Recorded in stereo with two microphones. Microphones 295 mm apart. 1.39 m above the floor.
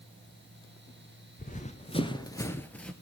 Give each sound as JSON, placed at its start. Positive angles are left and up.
{"t": 1.4, "sound": "running footsteps", "side_deg": 25, "distance_m": 1.5}